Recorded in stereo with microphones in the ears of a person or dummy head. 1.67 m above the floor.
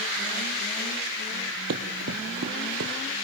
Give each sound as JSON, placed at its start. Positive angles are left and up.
{"t": 1.7, "sound": "running footsteps", "side_deg": -50, "distance_m": 2.5}